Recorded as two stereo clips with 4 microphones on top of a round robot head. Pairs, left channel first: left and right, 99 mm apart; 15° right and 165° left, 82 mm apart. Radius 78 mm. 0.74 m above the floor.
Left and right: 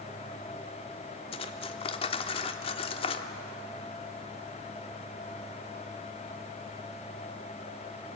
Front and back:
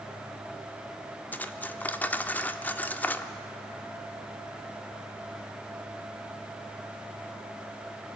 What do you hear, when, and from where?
1.3 s cutlery clinking: 60° left, 1.1 m